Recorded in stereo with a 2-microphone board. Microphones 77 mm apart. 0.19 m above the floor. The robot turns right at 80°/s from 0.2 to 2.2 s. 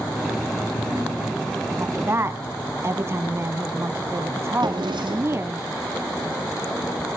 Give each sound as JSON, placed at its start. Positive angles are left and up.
{"t": 1.8, "sound": "a woman speaking", "azimuth_deg": -115, "distance_m": 1.2}
{"t": 4.6, "sound": "a drawer", "side_deg": -75, "distance_m": 3.0}